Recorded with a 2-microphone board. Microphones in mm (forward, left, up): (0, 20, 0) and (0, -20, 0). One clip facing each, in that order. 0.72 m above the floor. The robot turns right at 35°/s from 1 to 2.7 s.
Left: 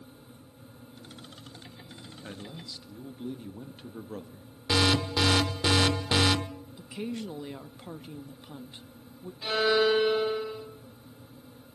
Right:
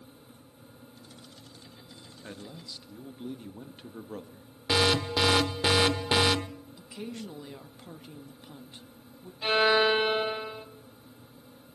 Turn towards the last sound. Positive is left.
turn(degrees=-45)  # may be behind; listen again after turning